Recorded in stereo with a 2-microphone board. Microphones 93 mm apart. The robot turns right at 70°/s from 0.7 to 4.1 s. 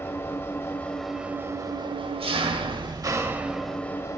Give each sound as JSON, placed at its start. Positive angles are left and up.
{"t": 0.0, "sound": "an engine running", "azimuth_deg": 155, "distance_m": 0.7}